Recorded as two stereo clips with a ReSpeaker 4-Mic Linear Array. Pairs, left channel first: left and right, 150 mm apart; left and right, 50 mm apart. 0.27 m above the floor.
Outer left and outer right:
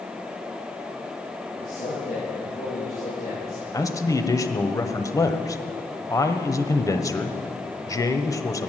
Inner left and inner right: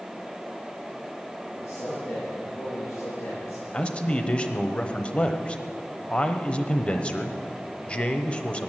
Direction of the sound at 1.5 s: 75° left (ahead or behind).